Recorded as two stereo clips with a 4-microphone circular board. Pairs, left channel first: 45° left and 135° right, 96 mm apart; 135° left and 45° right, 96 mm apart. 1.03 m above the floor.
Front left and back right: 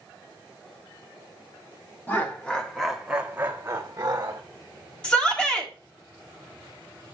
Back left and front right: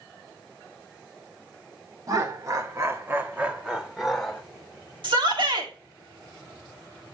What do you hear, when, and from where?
2.1 s laughter: 15° right, 1.2 m; by 4.4 s 145° right, 1.1 m
5.0 s a shout: 35° right, 1.7 m